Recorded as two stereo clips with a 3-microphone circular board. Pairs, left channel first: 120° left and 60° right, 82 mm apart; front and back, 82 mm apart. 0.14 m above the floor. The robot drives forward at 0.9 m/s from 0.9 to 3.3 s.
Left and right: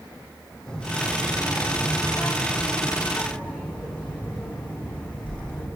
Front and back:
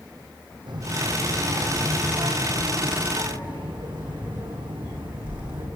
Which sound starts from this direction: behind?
A child speaking, at 0.7 s.